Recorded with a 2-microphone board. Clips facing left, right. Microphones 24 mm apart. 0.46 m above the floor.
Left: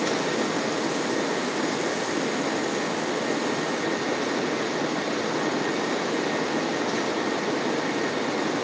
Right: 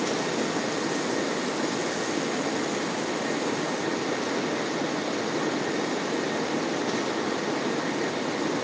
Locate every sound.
Only background noise.